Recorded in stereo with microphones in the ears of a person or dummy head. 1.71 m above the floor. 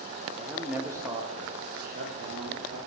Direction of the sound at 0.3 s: Centre (ahead or behind).